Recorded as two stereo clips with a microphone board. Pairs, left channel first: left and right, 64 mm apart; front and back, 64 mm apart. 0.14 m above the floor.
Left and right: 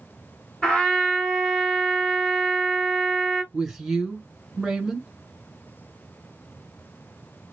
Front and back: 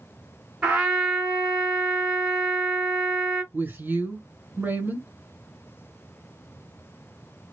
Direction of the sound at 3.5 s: 175° right.